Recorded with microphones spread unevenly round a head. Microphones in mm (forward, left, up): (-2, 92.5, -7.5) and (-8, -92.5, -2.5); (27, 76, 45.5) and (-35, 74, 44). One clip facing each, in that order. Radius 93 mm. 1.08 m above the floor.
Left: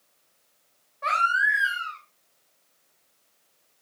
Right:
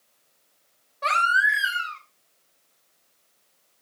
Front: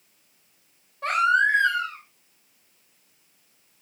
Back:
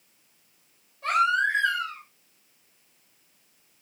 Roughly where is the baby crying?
Ahead right.